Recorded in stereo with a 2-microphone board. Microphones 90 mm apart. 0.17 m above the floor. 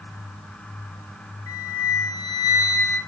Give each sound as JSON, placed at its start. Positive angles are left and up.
{"t": 1.5, "sound": "a flute", "side_deg": 40, "distance_m": 2.5}